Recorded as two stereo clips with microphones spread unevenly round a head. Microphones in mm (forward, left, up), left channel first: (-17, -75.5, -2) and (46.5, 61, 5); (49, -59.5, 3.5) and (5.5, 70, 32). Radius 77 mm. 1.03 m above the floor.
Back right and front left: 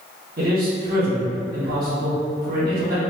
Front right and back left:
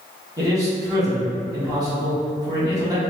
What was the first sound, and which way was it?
A man speaking, 40° left.